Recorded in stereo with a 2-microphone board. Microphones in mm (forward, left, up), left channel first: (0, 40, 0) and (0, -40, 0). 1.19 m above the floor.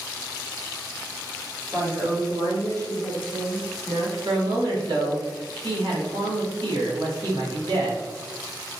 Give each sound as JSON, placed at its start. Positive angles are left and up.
{"t": 1.7, "sound": "a woman speaking", "side_deg": -40, "distance_m": 2.0}
{"t": 4.2, "sound": "a man speaking", "side_deg": -70, "distance_m": 1.5}